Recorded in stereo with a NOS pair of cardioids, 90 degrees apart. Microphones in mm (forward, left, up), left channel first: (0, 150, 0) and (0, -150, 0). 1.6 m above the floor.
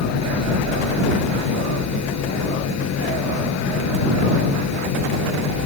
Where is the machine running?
60° left.